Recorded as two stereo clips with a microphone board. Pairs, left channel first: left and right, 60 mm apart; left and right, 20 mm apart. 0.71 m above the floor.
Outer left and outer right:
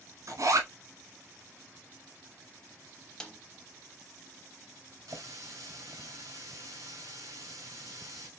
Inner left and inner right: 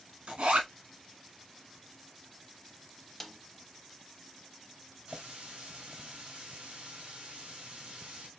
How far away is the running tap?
About 2.0 m.